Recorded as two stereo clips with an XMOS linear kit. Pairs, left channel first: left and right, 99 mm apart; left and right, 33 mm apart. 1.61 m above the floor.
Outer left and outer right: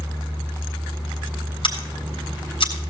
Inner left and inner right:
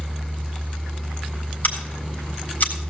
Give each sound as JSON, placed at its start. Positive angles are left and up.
{"t": 1.6, "sound": "scissors", "side_deg": 55, "distance_m": 4.0}